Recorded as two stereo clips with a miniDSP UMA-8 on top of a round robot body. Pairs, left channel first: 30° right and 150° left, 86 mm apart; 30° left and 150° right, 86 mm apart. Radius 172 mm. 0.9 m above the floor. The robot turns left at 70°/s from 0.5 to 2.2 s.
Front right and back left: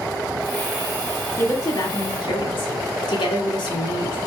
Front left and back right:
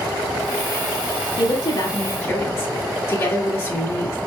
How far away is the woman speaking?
About 2 m.